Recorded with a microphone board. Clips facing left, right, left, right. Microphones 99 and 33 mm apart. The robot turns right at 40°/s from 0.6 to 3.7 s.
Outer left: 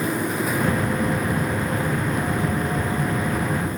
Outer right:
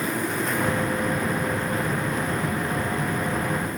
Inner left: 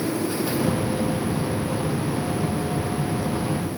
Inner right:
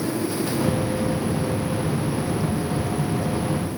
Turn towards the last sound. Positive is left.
No sound to turn to.